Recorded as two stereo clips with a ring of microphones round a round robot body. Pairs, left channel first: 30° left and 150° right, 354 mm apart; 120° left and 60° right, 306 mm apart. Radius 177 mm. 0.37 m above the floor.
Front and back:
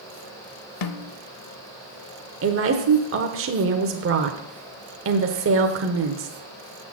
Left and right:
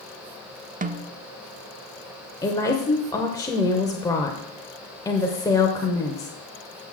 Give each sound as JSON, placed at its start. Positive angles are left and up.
{"t": 0.8, "sound": "a snare drum", "azimuth_deg": 5, "distance_m": 0.7}
{"t": 2.4, "sound": "a woman speaking", "azimuth_deg": -170, "distance_m": 0.9}